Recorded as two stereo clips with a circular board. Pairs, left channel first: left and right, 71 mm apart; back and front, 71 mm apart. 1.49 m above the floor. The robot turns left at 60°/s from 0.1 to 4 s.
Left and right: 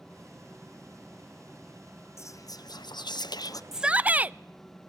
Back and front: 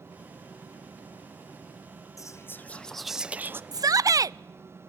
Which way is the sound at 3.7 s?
5° right.